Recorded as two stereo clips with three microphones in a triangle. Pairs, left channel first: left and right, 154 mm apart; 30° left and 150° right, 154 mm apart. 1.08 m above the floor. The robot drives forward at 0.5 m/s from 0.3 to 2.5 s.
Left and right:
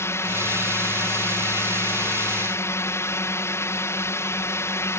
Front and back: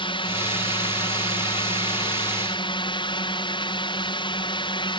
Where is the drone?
30° left; by 5.0 s 35° left.